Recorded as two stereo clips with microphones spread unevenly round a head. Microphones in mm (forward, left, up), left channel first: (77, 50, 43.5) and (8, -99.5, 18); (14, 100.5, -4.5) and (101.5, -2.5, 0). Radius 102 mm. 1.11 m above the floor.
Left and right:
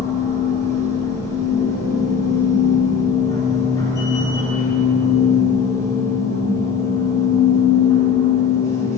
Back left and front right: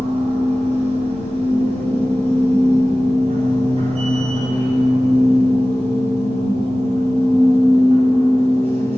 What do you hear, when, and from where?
0.0 s a machine running: 5° right, 3.5 m